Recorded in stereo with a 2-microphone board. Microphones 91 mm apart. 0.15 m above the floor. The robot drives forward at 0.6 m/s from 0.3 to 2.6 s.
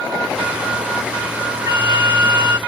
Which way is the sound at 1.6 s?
35° right (ahead or behind).